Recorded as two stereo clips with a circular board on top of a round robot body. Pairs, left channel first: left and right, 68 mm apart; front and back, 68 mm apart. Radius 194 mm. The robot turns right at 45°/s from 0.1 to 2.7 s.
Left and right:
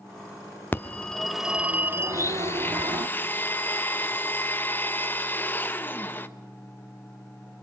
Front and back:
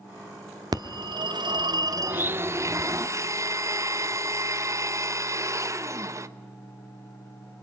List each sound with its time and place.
0.7 s a phone ringing: 155° left, 1.0 m; by 3.1 s 115° right, 1.0 m
2.1 s a blender: 120° left, 1.3 m; by 6.3 s 150° left, 1.3 m